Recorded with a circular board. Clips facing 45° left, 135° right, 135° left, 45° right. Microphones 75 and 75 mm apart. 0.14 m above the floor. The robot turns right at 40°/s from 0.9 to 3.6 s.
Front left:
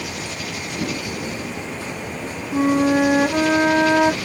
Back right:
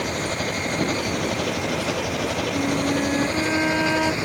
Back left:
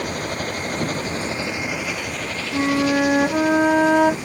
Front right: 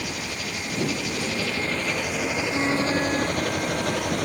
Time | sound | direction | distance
0.0 | an engine running | straight behind | ?
2.5 | a flute | 60° left | ?